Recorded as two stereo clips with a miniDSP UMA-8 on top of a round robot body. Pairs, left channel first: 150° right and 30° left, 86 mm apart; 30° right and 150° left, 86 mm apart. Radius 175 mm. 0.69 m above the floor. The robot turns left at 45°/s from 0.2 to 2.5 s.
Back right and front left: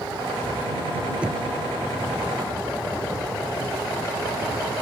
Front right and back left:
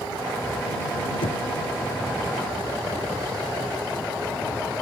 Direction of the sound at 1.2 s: 45° right.